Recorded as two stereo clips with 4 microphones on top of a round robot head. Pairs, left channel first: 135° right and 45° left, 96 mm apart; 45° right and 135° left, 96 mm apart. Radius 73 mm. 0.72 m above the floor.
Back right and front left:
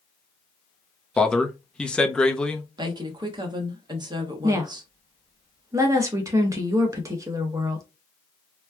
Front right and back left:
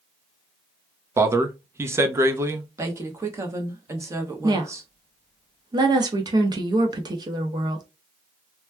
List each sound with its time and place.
1.2 s a man speaking: 155° left, 0.7 m
2.8 s a woman speaking: 80° left, 1.1 m
4.4 s a woman speaking: 100° left, 1.0 m